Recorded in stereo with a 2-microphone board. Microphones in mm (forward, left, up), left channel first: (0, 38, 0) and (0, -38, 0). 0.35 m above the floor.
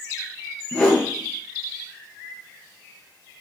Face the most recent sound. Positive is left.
turn(degrees=15)  # may be behind; listen again after turning